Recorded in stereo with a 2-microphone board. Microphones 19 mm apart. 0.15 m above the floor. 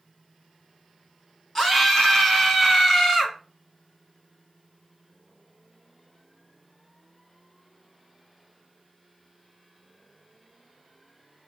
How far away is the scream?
About 1.3 m.